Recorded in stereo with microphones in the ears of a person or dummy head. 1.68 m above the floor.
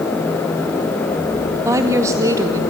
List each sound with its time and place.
1.6 s a woman speaking: 15° right (ahead or behind), 2 m